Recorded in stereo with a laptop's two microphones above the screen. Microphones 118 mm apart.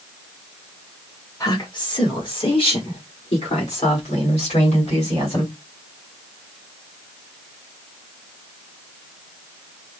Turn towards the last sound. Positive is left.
turn(degrees=65)  # may be behind; listen again after turning